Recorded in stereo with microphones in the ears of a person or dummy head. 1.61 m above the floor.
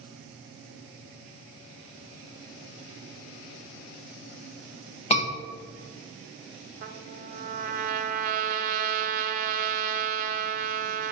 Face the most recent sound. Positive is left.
turn(degrees=-45)  # may be behind; listen again after turning